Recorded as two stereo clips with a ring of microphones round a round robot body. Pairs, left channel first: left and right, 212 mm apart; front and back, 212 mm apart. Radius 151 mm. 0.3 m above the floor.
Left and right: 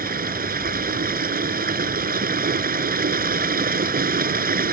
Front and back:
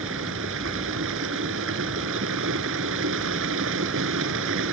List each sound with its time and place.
0.0 s running water: 135° right